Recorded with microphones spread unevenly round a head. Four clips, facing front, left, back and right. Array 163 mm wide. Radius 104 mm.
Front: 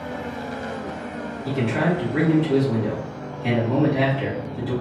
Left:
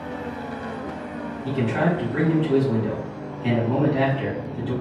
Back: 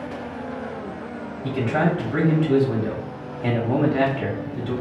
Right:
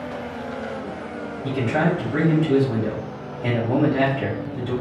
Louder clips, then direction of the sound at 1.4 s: Right 1 dB, back 1 dB; 165° right.